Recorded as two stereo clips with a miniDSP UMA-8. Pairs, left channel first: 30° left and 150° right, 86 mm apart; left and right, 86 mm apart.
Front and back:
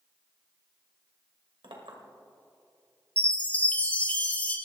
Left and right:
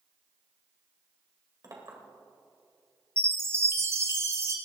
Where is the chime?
40° right, 1.2 m.